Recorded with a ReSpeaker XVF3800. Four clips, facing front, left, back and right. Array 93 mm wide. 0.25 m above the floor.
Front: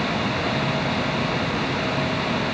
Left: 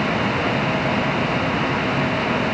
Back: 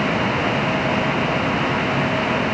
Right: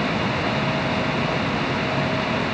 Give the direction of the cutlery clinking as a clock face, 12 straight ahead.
I don't hear cutlery clinking.